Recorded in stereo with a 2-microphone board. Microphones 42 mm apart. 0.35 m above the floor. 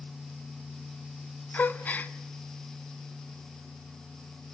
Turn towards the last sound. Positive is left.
turn(degrees=45)  # may be behind; listen again after turning